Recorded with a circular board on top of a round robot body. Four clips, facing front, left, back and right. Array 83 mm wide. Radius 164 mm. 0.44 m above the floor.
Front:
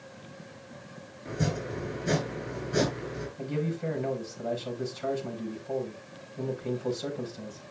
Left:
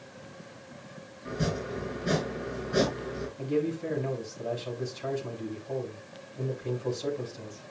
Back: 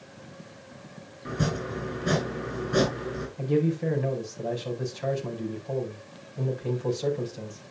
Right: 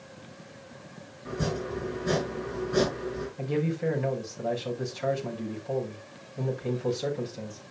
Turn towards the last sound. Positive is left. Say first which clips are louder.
# even, back 7 dB
turn(degrees=-130)